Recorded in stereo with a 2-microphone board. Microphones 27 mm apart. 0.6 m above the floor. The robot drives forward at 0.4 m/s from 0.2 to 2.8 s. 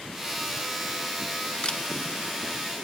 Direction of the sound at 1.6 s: 35° left (ahead or behind).